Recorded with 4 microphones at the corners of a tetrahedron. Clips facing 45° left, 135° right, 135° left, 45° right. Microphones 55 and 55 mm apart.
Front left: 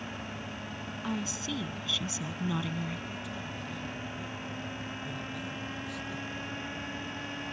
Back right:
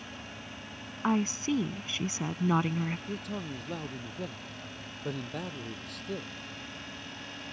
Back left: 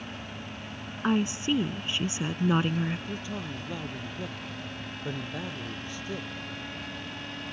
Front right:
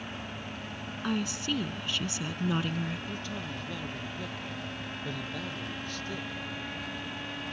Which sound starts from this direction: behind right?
A man speaking, at 3.1 s.